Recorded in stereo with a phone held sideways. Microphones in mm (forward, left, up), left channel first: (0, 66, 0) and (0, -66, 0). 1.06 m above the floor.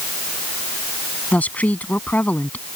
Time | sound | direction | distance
1.3 | a woman speaking | 10° left (ahead or behind) | ?